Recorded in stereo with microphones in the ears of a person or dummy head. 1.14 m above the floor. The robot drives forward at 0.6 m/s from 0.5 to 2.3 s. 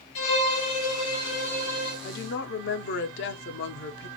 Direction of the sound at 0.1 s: 80° left.